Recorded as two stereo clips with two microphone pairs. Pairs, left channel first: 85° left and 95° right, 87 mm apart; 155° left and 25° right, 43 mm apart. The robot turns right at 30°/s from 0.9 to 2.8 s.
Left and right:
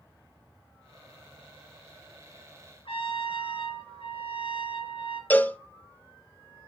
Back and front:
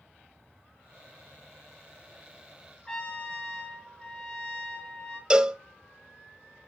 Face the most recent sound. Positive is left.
turn(degrees=30)